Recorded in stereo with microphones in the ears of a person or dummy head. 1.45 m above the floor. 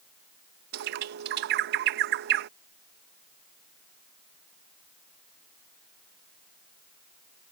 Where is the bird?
60° right (ahead or behind).